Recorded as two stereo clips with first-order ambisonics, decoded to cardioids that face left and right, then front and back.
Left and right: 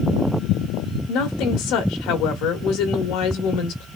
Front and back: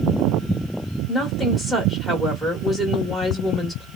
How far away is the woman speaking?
About 1.4 m.